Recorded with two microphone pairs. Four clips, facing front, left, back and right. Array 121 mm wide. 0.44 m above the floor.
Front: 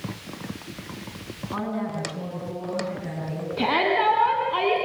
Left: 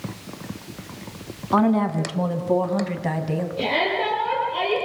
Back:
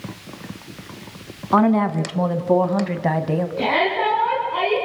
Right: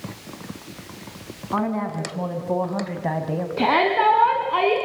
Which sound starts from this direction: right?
A shout, at 3.6 s.